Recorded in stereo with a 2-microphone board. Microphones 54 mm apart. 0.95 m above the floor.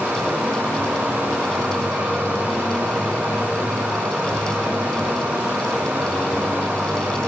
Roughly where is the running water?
Right.